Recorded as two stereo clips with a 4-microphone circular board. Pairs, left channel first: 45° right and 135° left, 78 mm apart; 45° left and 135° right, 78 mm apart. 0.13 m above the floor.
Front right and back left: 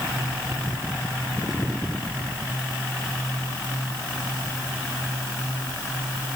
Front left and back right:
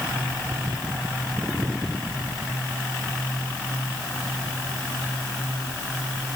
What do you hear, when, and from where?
Only background noise.